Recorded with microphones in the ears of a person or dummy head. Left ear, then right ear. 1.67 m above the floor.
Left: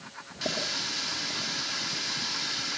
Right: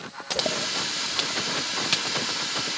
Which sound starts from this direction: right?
A running tap, at 0.4 s.